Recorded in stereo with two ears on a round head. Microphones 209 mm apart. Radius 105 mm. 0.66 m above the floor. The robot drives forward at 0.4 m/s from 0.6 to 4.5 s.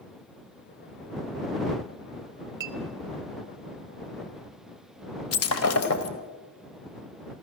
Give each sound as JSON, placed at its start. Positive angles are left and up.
{"t": 2.6, "sound": "a clink", "side_deg": -15, "distance_m": 1.0}
{"t": 5.3, "sound": "breaking glass", "side_deg": 75, "distance_m": 1.8}